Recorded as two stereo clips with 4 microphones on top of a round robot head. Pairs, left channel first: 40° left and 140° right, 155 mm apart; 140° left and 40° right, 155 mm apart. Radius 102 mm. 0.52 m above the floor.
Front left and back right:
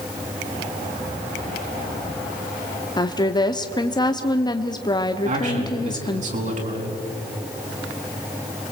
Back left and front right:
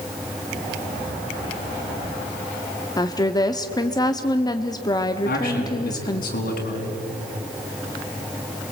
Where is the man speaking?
175° left, 5 m.